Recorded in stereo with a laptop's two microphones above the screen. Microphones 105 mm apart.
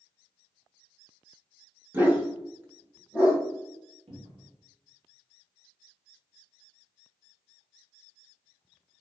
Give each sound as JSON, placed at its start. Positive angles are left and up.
{"t": 1.9, "sound": "a dog barking", "side_deg": -15, "distance_m": 0.7}
{"t": 4.1, "sound": "a cupboard door", "side_deg": -70, "distance_m": 1.3}